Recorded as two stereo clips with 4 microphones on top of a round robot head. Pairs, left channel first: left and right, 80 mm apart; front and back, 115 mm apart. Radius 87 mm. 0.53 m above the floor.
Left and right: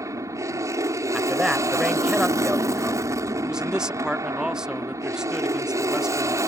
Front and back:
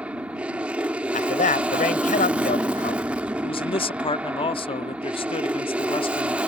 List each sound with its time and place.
0.0 s an aircraft: 110° right
1.1 s a man speaking: 5° right
3.4 s a man speaking: 10° right